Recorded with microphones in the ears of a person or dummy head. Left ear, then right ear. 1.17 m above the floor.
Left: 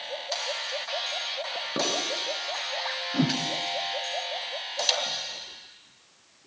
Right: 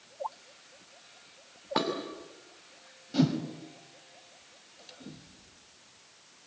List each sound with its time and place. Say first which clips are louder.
1.8 s dishes clattering: left 1 dB; 35° right (ahead or behind), 5 m
3.1 s a whoosh: even; 10° left (ahead or behind), 2.5 m